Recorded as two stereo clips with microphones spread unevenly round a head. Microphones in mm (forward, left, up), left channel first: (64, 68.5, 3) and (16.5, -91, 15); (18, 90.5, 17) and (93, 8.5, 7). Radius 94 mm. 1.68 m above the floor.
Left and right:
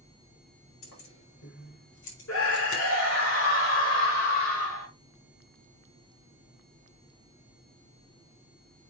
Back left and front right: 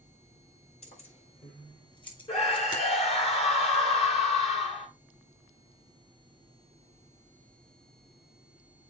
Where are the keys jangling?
105° left, 5.5 m; by 2.8 s 80° left, 4 m.